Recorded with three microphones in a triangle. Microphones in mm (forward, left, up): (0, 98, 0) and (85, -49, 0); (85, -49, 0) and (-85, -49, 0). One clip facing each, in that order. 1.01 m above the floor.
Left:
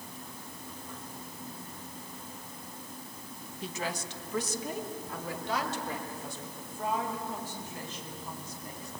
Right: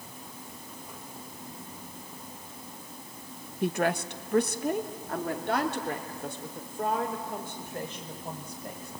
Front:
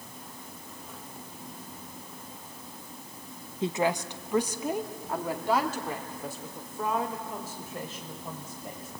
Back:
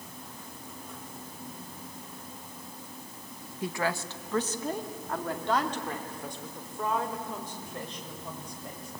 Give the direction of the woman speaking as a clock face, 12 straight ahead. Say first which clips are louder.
Right 10 dB, front 4 dB; 2 o'clock.